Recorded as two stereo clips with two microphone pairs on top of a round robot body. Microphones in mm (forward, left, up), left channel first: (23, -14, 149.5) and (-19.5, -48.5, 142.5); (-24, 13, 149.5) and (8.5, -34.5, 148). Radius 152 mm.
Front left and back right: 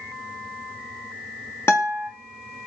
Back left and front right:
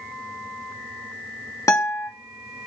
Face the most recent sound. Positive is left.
turn(degrees=90)